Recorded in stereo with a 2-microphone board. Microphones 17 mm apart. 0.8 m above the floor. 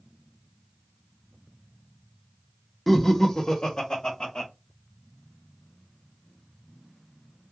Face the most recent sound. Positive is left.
turn(degrees=60)  # may be behind; listen again after turning